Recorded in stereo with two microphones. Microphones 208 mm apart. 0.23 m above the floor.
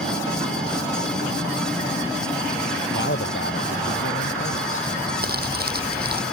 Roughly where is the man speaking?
Left.